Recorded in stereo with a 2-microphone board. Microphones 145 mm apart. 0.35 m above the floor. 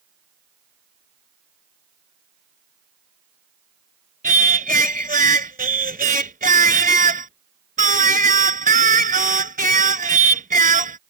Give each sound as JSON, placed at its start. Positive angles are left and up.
{"t": 4.2, "sound": "singing", "side_deg": -75}